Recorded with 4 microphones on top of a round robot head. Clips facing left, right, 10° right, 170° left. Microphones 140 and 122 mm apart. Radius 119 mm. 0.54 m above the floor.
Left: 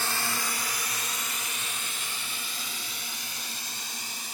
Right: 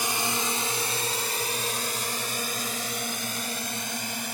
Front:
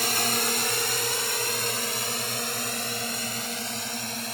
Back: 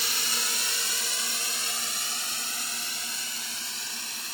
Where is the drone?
20° right; by 4.3 s 50° right.